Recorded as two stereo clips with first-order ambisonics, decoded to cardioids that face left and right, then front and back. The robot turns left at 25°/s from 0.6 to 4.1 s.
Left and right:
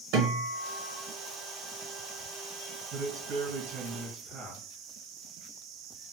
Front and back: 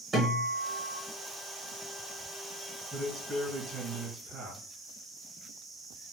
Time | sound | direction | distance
0.1 | a guitar | 105° right | 1.3 m
2.9 | a man speaking | 80° right | 1.9 m